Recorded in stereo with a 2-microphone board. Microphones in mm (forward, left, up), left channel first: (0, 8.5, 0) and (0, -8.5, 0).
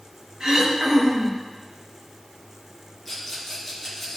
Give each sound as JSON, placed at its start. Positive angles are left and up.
{"t": 0.4, "sound": "throat clearing", "side_deg": -60, "distance_m": 3.5}
{"t": 3.0, "sound": "a rattle", "side_deg": 10, "distance_m": 4.0}